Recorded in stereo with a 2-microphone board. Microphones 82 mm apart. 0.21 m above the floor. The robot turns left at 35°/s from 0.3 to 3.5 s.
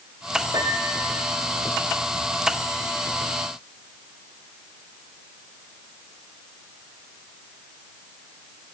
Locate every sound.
0.5 s a piano: 60° right (ahead or behind), 3.5 m; by 1.3 s 35° right (ahead or behind), 3.5 m